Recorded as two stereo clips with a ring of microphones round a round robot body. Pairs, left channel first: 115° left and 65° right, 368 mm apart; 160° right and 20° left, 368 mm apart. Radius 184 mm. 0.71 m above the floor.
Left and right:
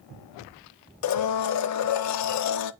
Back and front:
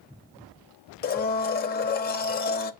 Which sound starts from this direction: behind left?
A blender, at 1.0 s.